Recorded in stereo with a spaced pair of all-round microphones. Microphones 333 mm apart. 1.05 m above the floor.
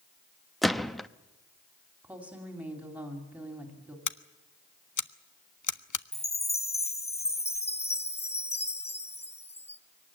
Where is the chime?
20° left (ahead or behind), 0.8 m.